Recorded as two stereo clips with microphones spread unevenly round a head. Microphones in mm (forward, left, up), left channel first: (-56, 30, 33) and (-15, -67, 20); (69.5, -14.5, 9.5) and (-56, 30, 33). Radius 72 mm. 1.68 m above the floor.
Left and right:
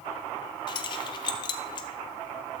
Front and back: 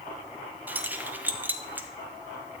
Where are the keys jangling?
100° left, 0.7 m.